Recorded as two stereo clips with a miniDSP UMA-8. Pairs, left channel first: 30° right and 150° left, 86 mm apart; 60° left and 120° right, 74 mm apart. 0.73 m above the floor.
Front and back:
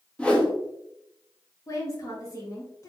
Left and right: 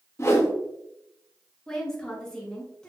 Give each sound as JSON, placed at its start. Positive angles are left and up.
{"t": 0.2, "sound": "a whoosh", "azimuth_deg": 40, "distance_m": 0.9}
{"t": 1.7, "sound": "a woman speaking", "azimuth_deg": -15, "distance_m": 1.3}